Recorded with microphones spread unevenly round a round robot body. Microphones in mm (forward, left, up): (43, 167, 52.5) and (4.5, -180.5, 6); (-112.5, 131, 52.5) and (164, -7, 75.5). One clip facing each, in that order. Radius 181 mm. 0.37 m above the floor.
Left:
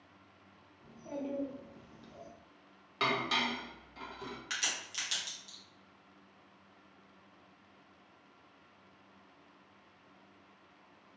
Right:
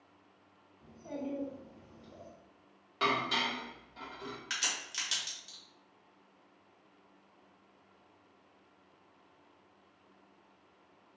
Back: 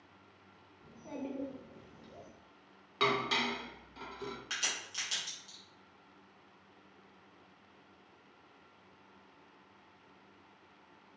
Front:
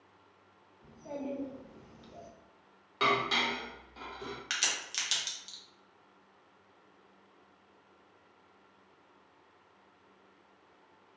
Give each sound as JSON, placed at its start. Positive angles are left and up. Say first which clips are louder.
{"t": 0.8, "sound": "a child speaking", "louder": "even, front 2 dB", "azimuth_deg": -175, "distance_m": 0.7}
{"t": 3.0, "sound": "dishes clattering", "louder": "even, front 1 dB", "azimuth_deg": 135, "distance_m": 0.6}
{"t": 4.5, "sound": "a crack", "louder": "even, front 2 dB", "azimuth_deg": -20, "distance_m": 0.9}